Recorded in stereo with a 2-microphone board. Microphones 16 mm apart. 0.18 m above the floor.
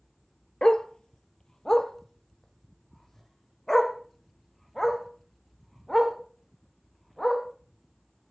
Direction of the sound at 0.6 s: 65° left (ahead or behind).